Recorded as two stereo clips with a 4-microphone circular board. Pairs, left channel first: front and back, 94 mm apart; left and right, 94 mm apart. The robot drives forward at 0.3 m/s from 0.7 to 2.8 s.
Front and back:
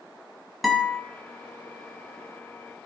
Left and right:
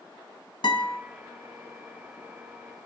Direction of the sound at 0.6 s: 90° left.